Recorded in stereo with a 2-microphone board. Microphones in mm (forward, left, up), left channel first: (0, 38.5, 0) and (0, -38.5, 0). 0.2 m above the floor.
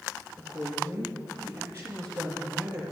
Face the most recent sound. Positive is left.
turn(degrees=-30)  # may be behind; listen again after turning